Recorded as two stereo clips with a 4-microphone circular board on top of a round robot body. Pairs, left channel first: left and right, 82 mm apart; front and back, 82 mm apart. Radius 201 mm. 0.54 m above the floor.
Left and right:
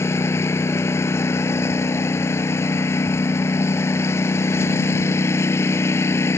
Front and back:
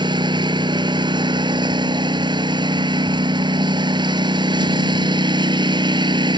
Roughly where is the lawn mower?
Behind left.